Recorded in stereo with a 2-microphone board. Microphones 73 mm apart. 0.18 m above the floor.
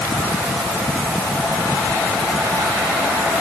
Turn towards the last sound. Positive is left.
No sound to turn to.